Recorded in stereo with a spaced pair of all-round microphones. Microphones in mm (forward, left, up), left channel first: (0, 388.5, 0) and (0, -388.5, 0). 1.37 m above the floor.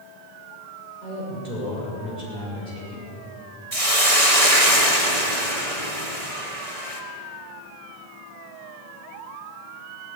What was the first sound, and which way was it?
A woman speaking, 65° right (ahead or behind).